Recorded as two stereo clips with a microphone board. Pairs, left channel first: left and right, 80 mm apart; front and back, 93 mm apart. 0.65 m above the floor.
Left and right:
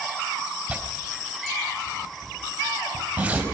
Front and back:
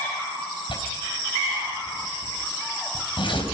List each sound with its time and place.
0.7 s tearing paper: 20° right, 4 m